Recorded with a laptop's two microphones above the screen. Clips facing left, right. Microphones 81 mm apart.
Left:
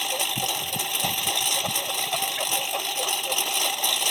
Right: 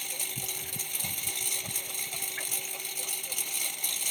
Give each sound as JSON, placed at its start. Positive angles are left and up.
{"t": 0.0, "sound": "a lawn mower", "side_deg": 70}